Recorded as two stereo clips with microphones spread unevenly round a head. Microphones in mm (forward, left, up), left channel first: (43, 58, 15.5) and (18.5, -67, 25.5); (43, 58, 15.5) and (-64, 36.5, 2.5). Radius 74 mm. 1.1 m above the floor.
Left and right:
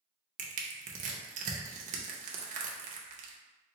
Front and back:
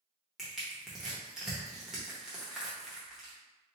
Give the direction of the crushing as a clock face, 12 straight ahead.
3 o'clock.